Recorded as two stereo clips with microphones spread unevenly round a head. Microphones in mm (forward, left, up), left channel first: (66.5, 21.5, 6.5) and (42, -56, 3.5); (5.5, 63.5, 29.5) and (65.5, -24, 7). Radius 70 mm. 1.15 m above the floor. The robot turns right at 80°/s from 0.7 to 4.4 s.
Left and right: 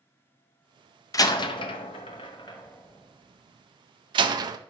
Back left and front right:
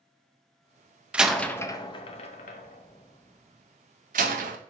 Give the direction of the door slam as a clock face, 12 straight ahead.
11 o'clock.